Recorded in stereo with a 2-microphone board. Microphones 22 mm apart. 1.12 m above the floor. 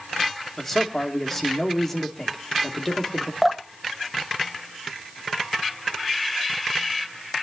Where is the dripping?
5° right (ahead or behind), 1.4 m.